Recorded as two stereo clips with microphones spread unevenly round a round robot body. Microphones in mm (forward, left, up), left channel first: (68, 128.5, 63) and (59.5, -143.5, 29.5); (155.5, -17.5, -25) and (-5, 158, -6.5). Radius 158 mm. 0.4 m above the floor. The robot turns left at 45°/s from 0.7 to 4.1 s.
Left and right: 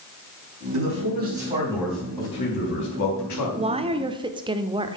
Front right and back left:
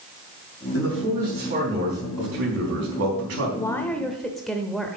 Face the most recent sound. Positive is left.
turn(degrees=-130)